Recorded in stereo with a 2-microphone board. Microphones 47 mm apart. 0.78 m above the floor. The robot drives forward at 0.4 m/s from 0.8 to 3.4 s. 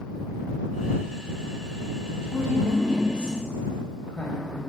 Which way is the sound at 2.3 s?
20° left (ahead or behind).